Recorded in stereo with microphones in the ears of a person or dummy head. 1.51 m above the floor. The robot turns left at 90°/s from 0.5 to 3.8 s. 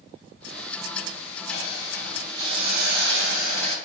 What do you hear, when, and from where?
1.5 s a hiss: 60° left, 1.2 m; by 3.8 s 145° right, 1.2 m